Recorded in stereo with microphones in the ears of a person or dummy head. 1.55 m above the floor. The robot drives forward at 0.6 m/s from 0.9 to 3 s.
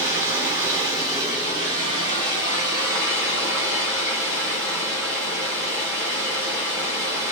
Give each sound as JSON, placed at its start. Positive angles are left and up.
{"t": 0.0, "sound": "running water", "side_deg": -15, "distance_m": 1.1}